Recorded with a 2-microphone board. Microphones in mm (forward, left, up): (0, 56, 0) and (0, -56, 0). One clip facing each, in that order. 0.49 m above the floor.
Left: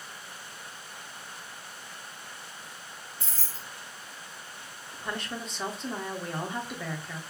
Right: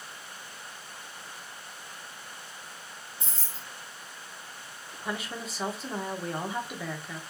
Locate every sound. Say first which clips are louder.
3.2 s keys jangling: even; 20° right (ahead or behind), 0.9 m
4.9 s a woman speaking: even; 5° right (ahead or behind), 0.8 m